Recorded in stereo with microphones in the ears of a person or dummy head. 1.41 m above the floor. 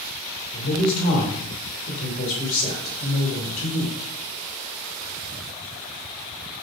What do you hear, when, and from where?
0.5 s a man speaking: 40° left (ahead or behind), 2 m